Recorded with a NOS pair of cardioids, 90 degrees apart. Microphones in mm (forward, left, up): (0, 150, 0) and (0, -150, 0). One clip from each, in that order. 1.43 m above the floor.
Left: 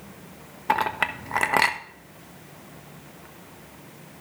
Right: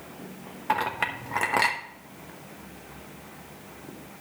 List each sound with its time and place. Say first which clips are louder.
0.7 s a clink: left 3 dB; 25° left, 1.1 m